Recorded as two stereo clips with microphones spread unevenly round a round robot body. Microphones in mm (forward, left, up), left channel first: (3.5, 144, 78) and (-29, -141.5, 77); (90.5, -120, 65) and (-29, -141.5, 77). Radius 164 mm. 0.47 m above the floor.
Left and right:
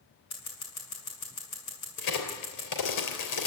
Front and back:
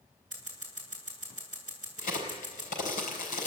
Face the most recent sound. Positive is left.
turn(degrees=55)